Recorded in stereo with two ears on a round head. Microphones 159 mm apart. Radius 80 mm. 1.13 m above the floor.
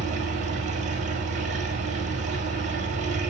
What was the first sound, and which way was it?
An engine running, 40° right (ahead or behind).